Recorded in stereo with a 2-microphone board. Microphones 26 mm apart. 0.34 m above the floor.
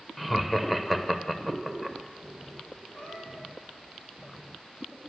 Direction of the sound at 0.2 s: 5° left (ahead or behind).